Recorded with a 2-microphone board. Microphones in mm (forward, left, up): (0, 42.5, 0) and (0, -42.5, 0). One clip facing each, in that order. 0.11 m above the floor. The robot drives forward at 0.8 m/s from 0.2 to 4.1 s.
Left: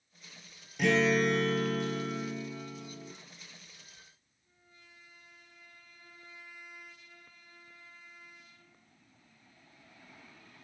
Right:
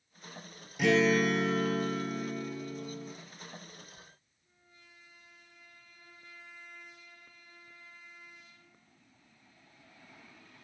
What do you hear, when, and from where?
0.8 s a guitar: centre (ahead or behind), 0.9 m